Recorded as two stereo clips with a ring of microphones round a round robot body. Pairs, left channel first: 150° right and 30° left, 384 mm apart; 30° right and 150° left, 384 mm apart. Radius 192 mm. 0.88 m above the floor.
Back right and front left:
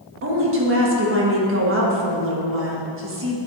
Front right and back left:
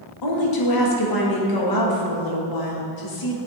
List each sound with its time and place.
0.2 s a woman speaking: 20° right, 1.4 m